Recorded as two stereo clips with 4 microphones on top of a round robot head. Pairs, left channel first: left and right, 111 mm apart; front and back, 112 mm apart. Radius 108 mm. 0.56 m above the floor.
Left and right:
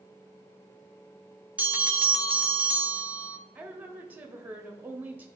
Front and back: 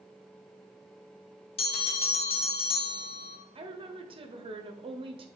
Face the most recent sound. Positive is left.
turn(degrees=-160)